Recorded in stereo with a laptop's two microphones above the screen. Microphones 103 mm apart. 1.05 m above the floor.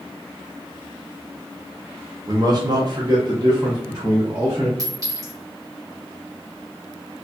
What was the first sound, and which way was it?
A man speaking, 35° right (ahead or behind).